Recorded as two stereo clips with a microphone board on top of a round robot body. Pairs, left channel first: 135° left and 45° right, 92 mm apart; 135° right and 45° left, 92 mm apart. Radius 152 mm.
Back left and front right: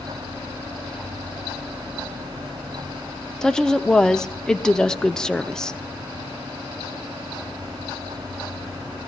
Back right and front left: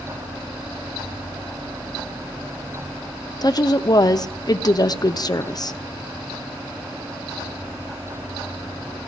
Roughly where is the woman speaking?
Behind right.